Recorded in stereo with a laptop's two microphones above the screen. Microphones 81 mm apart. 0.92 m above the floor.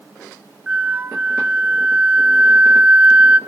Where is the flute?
15° right (ahead or behind), 0.8 m.